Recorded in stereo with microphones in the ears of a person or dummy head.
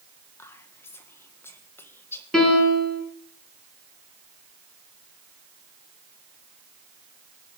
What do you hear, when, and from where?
0.4 s whispering: 20° left (ahead or behind), 1.6 m
2.3 s a piano: 5° left (ahead or behind), 5 m